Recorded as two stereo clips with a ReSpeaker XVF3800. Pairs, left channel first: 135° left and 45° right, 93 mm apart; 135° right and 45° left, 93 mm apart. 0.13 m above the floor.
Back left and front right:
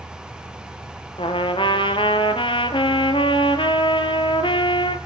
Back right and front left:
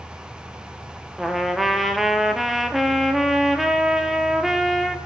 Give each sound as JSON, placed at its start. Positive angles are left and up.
{"t": 1.2, "sound": "a trumpet", "azimuth_deg": 135, "distance_m": 1.0}